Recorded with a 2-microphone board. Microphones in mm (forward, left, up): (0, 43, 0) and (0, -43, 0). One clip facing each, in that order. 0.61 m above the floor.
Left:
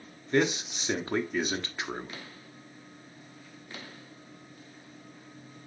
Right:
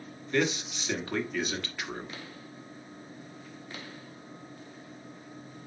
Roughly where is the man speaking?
Left.